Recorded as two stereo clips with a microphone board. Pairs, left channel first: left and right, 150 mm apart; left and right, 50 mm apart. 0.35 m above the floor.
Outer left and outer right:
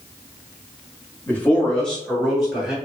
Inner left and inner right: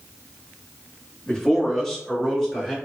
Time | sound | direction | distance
1.3 | a man speaking | 15° left (ahead or behind) | 1.0 m